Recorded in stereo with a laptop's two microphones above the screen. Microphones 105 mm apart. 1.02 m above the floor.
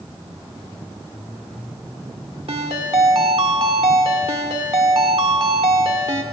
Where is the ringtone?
65° right (ahead or behind), 1.0 m.